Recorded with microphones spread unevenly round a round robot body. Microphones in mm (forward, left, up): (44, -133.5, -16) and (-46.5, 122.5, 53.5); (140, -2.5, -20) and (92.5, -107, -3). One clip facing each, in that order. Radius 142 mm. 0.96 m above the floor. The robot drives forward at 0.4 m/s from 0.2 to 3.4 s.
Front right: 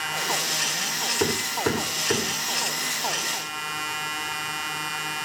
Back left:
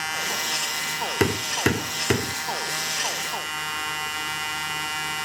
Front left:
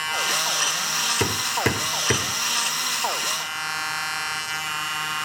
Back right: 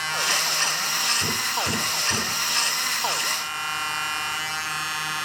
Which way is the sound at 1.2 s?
60° left.